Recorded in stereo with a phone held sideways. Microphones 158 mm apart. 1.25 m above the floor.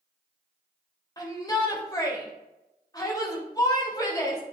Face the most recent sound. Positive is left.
turn(degrees=25)  # may be behind; listen again after turning